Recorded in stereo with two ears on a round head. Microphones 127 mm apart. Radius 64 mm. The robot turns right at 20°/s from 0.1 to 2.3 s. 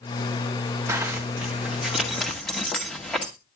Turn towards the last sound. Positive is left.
turn(degrees=5)  # may be behind; listen again after turning